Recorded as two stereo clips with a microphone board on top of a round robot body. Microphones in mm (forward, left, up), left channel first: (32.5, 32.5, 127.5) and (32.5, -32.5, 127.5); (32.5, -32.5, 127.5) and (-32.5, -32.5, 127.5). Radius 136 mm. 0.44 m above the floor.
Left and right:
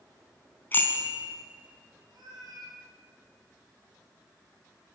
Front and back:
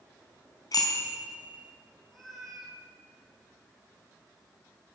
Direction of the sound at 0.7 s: 30° left.